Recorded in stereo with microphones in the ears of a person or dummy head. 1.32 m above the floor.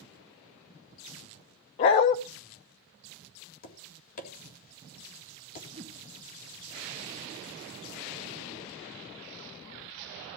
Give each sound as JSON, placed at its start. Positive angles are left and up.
{"t": 1.8, "sound": "a dog barking", "side_deg": 25, "distance_m": 0.7}
{"t": 3.6, "sound": "tapping", "side_deg": 45, "distance_m": 3.5}
{"t": 5.7, "sound": "a whoosh", "side_deg": -30, "distance_m": 2.0}